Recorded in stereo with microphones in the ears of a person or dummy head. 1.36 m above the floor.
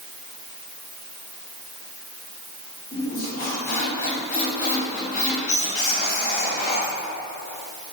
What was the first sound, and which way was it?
A squeak, 50° left (ahead or behind).